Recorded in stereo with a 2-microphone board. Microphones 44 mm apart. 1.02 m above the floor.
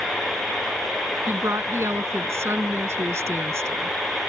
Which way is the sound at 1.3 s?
80° right.